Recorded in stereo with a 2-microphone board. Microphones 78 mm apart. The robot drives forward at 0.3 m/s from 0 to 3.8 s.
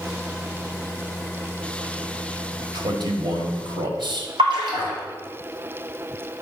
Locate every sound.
2.7 s a man speaking: 60° right (ahead or behind), 1.5 m; by 4.3 s 70° right (ahead or behind), 1.4 m
4.4 s a splash: 70° right (ahead or behind), 2.5 m